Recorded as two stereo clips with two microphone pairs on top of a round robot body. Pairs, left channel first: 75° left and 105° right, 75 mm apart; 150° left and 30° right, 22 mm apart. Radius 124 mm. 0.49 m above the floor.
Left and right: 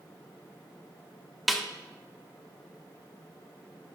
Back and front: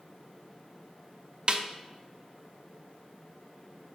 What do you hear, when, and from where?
1.5 s a snare drum: 10° right, 1.1 m